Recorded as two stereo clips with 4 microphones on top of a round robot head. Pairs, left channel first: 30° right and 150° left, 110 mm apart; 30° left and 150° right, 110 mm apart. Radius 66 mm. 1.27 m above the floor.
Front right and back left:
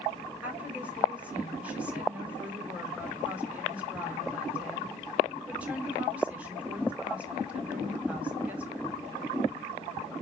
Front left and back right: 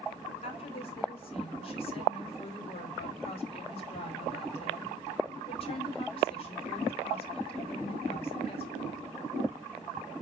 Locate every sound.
0.4 s a woman speaking: 70° left, 4.5 m